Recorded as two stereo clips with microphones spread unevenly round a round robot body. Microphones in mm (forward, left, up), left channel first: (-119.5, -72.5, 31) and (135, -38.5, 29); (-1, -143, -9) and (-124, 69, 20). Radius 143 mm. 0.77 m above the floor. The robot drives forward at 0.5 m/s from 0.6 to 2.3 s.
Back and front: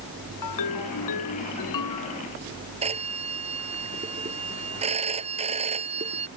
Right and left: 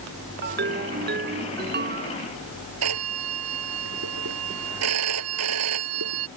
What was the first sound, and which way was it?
A ringtone, 165° left.